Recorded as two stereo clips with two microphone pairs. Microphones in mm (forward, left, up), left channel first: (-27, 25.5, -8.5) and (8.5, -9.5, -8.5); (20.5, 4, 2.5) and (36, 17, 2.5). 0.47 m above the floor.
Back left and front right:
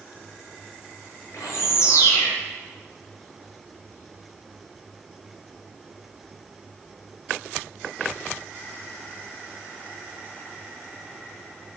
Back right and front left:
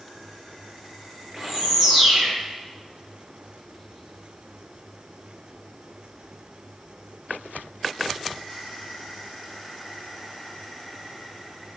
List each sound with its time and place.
1.3 s a bird: 115° left, 8.5 m